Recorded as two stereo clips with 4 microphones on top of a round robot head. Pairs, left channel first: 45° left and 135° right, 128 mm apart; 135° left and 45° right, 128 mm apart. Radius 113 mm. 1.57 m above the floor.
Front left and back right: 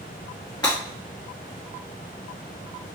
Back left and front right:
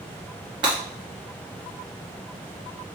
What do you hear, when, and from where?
0.6 s breaking glass: 5° right, 1.2 m